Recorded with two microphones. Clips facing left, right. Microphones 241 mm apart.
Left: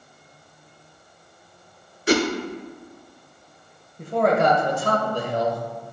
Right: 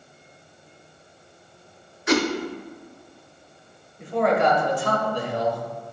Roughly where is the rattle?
I don't hear a rattle.